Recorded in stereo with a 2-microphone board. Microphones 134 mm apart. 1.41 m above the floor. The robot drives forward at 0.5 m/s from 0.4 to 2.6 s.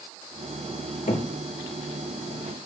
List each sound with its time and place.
1.1 s knocking: 75° left (ahead or behind), 1.9 m